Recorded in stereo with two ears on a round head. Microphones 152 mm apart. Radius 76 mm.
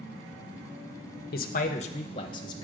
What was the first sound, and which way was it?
A man speaking, 60° left (ahead or behind).